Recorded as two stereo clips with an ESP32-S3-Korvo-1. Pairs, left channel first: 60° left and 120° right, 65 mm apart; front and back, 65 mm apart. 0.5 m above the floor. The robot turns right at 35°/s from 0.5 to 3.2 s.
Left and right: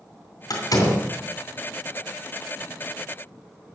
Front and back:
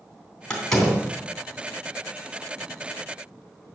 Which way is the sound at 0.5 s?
75° left.